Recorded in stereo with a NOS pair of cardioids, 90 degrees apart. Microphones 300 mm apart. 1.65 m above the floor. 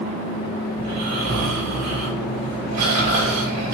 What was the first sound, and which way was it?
Snoring, 60° right.